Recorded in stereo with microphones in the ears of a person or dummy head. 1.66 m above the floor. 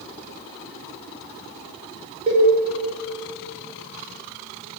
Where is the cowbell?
30° right (ahead or behind), 0.9 m.